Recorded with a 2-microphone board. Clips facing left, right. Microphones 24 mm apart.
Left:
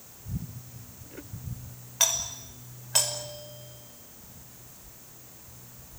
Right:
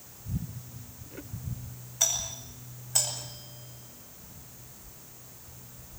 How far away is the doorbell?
About 6.5 m.